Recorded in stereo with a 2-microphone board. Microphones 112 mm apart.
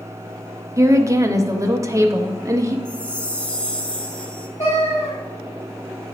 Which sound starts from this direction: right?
A woman speaking, at 0.8 s.